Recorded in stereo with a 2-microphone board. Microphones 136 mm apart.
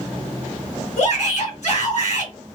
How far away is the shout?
About 3 m.